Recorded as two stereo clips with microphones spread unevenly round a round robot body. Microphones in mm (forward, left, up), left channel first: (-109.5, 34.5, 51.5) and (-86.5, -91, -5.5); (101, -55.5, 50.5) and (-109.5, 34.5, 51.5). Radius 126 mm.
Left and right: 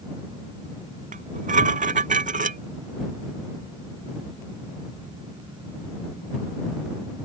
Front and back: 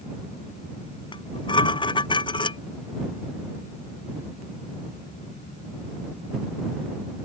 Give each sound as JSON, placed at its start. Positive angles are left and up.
{"t": 1.1, "sound": "dishes clattering", "azimuth_deg": -95}